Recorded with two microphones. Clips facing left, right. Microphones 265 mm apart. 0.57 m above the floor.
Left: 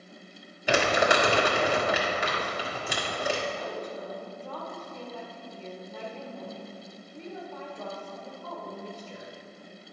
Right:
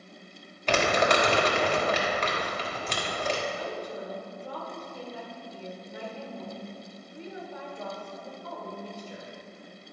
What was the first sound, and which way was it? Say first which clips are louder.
Crumpling: even; 10° left (ahead or behind).